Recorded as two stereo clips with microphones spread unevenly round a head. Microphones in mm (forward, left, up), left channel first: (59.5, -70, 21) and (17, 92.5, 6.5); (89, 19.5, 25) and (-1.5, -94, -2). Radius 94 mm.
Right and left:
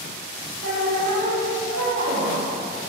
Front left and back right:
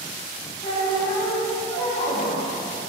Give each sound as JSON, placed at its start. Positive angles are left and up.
{"t": 0.6, "sound": "a squeak", "azimuth_deg": 95, "distance_m": 0.6}